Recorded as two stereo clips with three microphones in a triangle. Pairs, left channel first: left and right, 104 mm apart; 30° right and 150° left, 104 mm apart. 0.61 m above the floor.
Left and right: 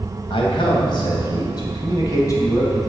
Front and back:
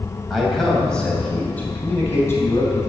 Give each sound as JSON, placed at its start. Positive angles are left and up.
{"t": 0.3, "sound": "a man speaking", "azimuth_deg": 60, "distance_m": 3.0}